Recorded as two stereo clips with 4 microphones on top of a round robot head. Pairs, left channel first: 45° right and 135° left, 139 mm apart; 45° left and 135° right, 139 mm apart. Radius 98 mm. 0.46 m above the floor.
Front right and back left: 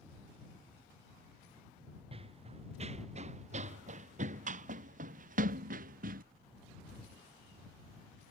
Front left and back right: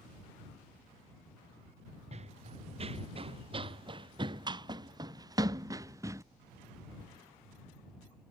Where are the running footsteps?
175° right; by 6.2 s 155° left.